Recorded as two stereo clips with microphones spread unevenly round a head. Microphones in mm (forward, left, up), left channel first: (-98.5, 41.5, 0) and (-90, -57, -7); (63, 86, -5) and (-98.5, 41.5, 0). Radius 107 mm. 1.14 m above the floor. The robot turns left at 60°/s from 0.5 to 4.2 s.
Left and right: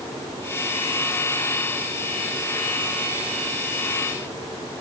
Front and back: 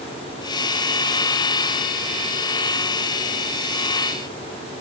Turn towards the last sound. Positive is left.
No sound to turn to.